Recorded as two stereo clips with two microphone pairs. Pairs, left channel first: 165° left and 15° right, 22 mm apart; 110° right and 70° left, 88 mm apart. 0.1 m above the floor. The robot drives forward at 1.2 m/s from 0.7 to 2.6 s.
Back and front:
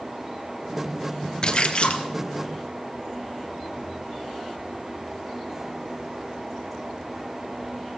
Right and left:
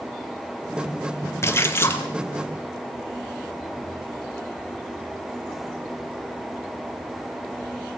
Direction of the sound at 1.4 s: 150° right.